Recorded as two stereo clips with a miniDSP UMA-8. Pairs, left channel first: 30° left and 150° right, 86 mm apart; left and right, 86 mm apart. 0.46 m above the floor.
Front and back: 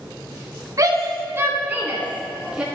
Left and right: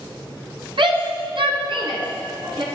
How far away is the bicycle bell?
I don't hear a bicycle bell.